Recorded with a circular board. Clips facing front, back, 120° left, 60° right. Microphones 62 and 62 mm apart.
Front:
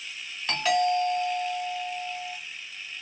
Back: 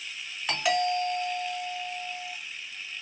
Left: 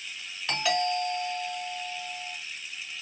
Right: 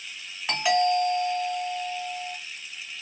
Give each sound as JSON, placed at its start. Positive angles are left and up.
{"t": 0.5, "sound": "a doorbell", "azimuth_deg": -115, "distance_m": 1.5}